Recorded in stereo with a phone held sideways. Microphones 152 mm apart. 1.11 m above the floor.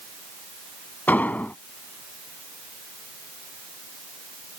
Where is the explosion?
10° left (ahead or behind).